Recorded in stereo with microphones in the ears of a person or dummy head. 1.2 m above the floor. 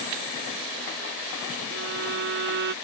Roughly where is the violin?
Right.